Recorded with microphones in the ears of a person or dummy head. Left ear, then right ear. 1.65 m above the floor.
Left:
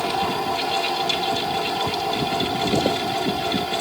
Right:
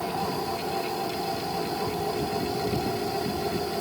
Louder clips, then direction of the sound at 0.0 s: Left 6 dB; 75° left (ahead or behind).